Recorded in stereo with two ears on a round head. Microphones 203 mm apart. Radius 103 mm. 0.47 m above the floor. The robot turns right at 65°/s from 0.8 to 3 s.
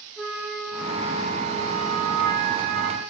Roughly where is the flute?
Behind.